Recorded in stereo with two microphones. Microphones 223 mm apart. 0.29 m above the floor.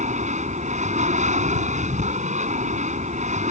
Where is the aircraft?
30° right (ahead or behind).